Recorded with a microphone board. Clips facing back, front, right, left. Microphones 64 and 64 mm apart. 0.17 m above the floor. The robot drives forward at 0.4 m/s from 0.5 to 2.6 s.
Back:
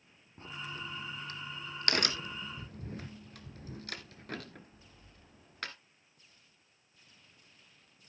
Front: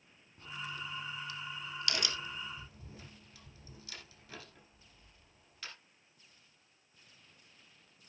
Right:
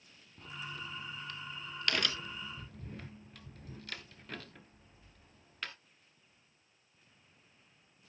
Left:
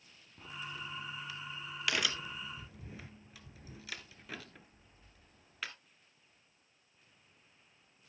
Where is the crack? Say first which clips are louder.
Even, even; 165° left, 0.8 m; by 5.7 s 175° left, 1.5 m.